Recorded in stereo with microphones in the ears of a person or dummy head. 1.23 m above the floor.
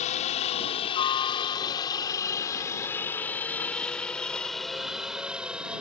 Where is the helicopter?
35° left (ahead or behind); by 5.8 s 5° right (ahead or behind).